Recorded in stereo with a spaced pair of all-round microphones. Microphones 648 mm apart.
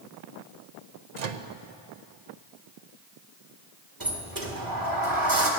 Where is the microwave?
80° right, 0.8 m.